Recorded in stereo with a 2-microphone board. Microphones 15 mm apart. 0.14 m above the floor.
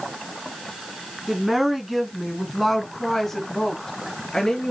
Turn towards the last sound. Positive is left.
turn(degrees=30)  # may be behind; listen again after turning